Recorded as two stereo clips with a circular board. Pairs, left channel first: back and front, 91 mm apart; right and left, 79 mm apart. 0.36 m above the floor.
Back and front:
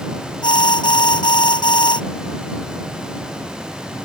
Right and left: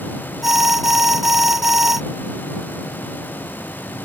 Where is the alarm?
175° left.